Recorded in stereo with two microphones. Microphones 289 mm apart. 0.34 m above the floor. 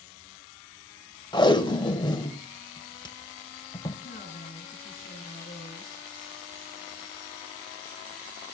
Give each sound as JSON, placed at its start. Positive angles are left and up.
{"t": 1.3, "sound": "tape being pulled", "side_deg": 15, "distance_m": 1.1}
{"t": 4.0, "sound": "a woman speaking", "side_deg": 35, "distance_m": 4.0}